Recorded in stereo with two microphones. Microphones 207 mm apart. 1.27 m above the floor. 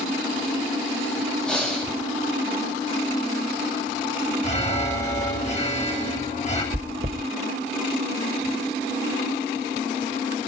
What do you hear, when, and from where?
1.5 s breathing: 5° left (ahead or behind), 8 m
4.4 s an alarm: 35° left (ahead or behind), 7.5 m
6.7 s chewing: 45° right (ahead or behind), 2 m